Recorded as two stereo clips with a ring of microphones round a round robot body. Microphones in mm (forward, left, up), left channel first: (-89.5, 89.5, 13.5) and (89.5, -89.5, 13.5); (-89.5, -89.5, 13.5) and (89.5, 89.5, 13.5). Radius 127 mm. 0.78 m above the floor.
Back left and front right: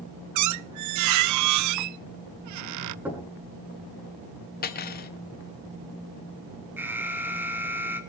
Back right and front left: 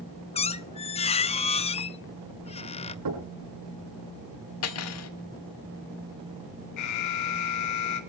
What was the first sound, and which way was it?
A squeak, 65° right.